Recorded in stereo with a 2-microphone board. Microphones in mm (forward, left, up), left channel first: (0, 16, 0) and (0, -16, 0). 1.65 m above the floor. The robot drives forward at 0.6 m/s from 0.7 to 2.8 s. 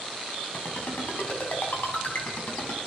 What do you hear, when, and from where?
0.5 s a ringtone: 80° left, 7 m; by 2.8 s 70° left (ahead or behind), 7 m